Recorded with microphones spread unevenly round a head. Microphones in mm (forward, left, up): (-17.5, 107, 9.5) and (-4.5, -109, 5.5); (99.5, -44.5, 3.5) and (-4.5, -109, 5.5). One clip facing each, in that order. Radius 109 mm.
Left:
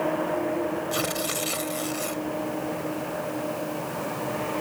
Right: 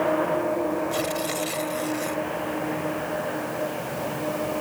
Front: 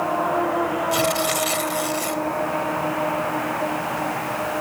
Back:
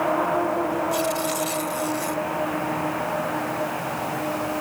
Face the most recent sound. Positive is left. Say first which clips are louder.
# right 2 dB, front 2 dB
turn(degrees=20)